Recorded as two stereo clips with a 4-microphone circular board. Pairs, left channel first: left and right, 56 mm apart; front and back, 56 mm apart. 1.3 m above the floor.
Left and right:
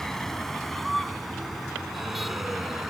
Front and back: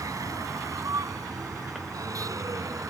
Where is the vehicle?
175° left; by 2.9 s 175° right.